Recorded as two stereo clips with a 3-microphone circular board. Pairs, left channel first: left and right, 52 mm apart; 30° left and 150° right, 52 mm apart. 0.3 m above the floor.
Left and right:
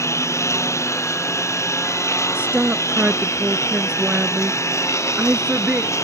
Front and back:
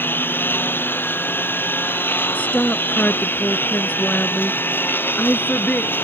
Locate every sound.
0.0 s a lawn mower: 75° left
2.4 s a woman speaking: 30° right